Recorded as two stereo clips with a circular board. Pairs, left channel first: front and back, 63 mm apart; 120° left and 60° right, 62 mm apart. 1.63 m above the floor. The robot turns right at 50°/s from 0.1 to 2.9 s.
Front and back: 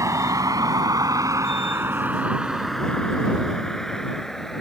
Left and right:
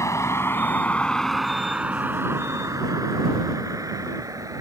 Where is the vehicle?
155° left; by 4.6 s 85° right.